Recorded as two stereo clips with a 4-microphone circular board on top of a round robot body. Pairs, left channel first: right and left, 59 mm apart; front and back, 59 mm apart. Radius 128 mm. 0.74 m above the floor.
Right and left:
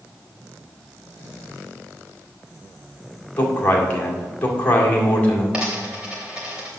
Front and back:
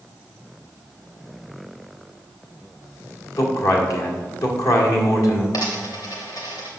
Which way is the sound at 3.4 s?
25° right.